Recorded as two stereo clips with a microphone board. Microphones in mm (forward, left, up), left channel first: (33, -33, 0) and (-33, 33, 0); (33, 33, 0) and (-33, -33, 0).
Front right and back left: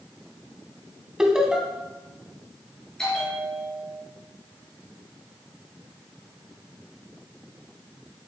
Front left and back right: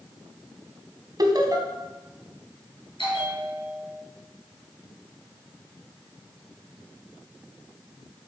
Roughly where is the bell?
Ahead left.